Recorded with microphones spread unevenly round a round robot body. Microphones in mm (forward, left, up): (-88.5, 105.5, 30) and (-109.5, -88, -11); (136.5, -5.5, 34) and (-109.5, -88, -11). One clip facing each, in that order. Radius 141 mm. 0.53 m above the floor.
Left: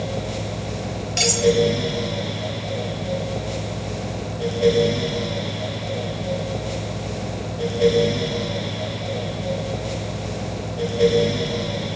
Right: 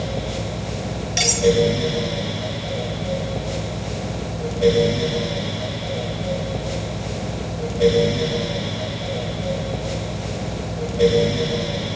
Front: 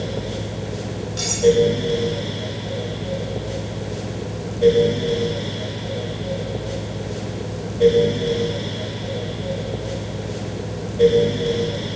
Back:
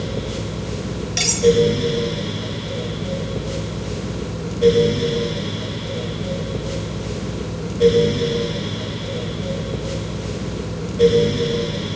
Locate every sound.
1.2 s cutlery clinking: 170° right, 6.5 m